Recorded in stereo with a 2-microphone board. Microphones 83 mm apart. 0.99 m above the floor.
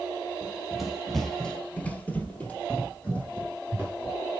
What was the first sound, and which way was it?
Running footsteps, 5° right (ahead or behind).